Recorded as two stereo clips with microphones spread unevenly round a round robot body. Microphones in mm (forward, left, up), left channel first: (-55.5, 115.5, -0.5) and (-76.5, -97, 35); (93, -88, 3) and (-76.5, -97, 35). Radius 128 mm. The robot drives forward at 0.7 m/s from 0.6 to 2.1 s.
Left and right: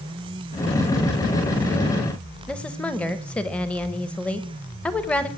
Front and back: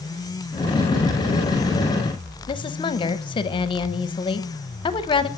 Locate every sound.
2.5 s a woman speaking: 15° left, 0.8 m